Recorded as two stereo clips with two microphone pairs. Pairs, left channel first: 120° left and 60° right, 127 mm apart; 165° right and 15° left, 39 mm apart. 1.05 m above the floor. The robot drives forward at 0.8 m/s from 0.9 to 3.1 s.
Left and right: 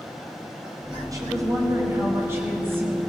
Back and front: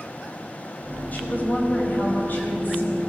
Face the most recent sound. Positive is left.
turn(degrees=-135)